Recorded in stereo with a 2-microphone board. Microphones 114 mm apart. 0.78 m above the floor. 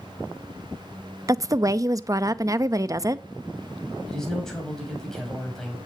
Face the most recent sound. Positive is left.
turn(degrees=5)  # may be behind; listen again after turning